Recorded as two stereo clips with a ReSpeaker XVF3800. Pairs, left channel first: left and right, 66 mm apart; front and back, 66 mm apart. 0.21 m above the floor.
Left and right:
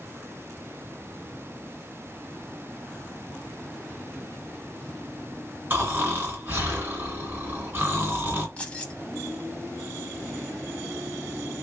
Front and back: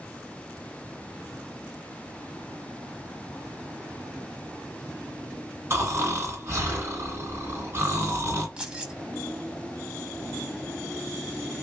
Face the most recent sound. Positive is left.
turn(degrees=125)